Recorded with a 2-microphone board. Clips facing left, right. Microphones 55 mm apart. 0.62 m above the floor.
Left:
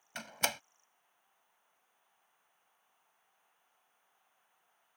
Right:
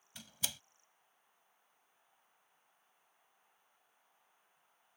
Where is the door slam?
65° left (ahead or behind).